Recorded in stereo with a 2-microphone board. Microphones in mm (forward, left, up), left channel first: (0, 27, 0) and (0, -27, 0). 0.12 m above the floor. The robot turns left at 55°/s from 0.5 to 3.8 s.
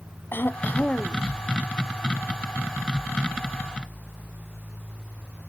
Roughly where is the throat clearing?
Ahead left.